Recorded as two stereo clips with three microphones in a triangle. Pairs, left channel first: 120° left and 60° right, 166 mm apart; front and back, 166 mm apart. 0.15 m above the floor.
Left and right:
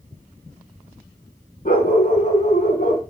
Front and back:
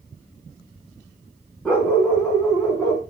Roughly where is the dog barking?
Left.